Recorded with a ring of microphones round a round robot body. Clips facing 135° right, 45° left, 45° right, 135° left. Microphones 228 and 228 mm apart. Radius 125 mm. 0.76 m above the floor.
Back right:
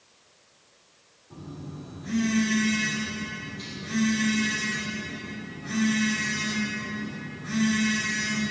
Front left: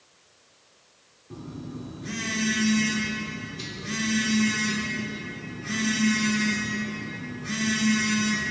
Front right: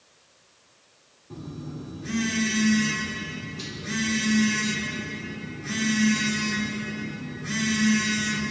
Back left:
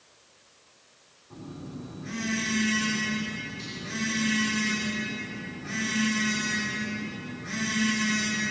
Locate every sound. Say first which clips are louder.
1.3 s a phone buzzing: front left 3 dB, front right 3 dB; 5° right, 3 m